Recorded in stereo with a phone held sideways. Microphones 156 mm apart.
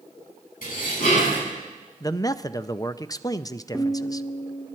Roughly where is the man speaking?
Left.